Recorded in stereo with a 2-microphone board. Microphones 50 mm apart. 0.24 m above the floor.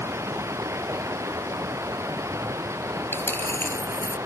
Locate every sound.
0.0 s running water: 70° right (ahead or behind)
3.1 s a dropped coin: 45° left (ahead or behind)